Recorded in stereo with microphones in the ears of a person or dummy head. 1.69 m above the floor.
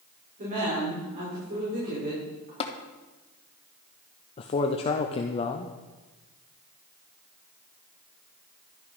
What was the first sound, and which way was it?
A woman speaking, 45° right (ahead or behind).